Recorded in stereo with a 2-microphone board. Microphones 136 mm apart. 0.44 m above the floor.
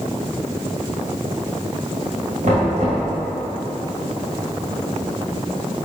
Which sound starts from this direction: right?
Knocking, at 2.4 s.